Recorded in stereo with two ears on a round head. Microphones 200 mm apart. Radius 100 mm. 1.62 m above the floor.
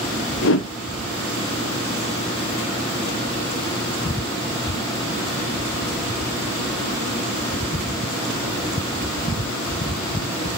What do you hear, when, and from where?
0.4 s a whoosh: 60° left (ahead or behind), 0.9 m